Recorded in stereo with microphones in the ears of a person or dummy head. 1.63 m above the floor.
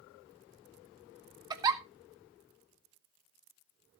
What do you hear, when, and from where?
1.5 s a giggle: 20° right (ahead or behind), 1.1 m